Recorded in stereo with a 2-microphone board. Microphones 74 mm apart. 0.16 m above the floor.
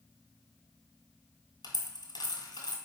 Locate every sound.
1.6 s a dropped coin: 75° left (ahead or behind), 1.3 m